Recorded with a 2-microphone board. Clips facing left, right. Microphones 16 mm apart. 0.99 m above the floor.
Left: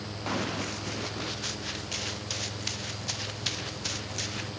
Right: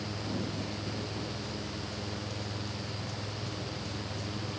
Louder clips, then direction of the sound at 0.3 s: Left 7 dB; 70° left (ahead or behind).